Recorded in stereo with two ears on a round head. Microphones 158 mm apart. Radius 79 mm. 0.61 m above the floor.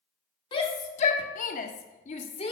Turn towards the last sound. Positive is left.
turn(degrees=30)  # may be behind; listen again after turning